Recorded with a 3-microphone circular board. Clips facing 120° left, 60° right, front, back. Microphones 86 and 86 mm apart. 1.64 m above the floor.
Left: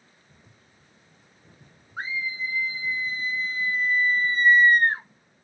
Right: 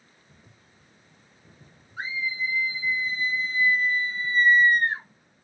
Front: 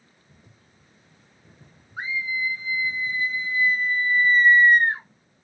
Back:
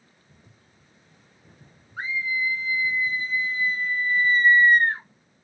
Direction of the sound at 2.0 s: 75° left.